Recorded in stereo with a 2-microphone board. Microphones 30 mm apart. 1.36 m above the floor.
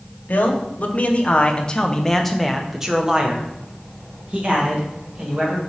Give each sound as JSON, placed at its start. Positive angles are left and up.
{"t": 0.3, "sound": "a man speaking", "side_deg": 65, "distance_m": 1.1}